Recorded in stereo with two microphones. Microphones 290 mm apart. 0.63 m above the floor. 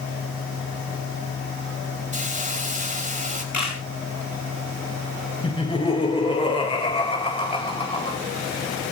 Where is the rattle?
I don't hear a rattle.